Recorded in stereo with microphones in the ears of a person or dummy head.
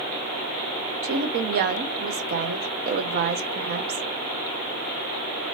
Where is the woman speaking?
50° right (ahead or behind), 0.7 m.